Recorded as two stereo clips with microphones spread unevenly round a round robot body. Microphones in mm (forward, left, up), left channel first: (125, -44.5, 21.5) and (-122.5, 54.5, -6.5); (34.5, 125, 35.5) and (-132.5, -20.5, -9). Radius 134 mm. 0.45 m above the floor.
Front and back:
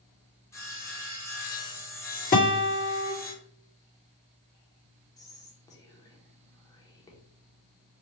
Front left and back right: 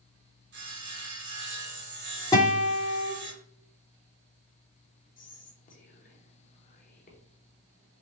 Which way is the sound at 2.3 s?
40° right.